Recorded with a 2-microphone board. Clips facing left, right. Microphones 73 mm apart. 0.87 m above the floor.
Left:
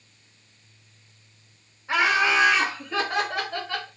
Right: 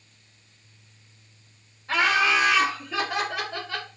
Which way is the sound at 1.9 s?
15° left (ahead or behind).